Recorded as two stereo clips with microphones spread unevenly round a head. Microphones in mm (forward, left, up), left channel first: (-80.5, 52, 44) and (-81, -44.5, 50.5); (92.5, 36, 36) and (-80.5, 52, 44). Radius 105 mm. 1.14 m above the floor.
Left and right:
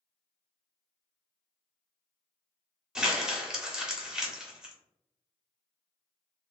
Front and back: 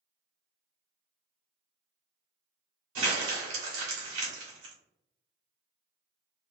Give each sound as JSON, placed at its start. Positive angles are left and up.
{"t": 3.0, "sound": "crumpling", "azimuth_deg": -170, "distance_m": 1.4}